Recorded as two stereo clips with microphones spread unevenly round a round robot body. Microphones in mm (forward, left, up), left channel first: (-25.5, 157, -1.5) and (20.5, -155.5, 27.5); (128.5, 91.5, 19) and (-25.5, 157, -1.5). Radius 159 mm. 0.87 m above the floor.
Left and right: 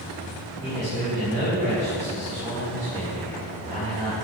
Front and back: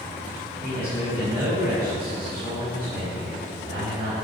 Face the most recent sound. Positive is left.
turn(degrees=-145)